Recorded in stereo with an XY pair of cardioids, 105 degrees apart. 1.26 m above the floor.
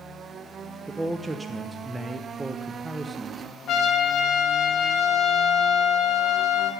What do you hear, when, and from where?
0.9 s a man speaking: 20° right, 0.6 m
3.7 s a trumpet: 65° left, 1.0 m